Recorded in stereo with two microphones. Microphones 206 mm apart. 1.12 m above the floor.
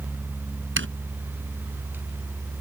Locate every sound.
0.8 s a zipper: 70° right (ahead or behind)